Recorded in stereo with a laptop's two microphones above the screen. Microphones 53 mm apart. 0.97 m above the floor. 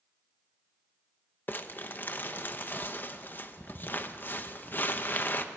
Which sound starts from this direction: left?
Crumpling, at 1.5 s.